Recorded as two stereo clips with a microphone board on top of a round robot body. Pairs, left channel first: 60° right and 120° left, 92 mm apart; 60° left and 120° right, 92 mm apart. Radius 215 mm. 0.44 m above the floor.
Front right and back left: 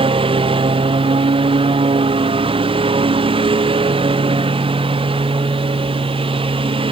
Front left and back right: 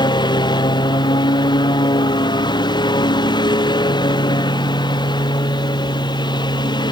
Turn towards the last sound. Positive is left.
turn(degrees=95)